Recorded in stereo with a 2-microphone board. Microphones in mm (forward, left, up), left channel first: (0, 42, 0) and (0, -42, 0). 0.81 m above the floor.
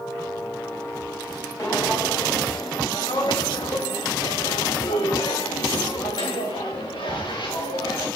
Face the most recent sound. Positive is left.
turn(degrees=65)  # may be behind; listen again after turning